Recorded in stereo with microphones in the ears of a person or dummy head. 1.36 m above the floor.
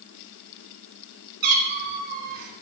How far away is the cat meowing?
About 3 m.